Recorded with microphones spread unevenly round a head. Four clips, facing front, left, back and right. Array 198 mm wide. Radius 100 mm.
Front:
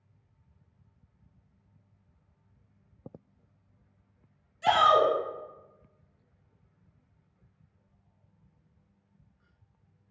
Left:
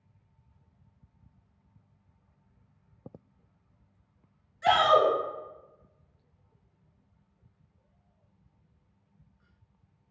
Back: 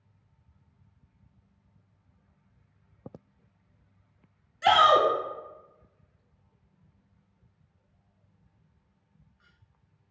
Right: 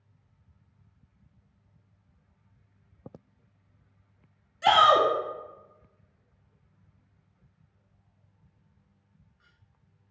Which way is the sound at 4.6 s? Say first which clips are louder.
Right 2 dB, back 2 dB; 140° right.